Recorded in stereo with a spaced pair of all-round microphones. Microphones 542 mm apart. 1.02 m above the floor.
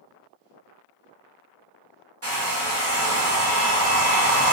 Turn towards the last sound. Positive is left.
turn(degrees=-25)  # may be behind; listen again after turning